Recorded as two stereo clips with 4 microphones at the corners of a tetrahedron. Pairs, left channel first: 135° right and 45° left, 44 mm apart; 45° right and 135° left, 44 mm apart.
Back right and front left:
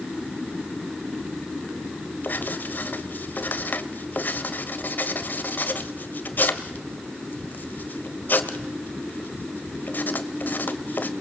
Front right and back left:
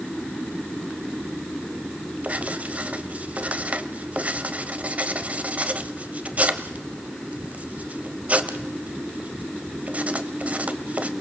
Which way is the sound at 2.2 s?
170° right.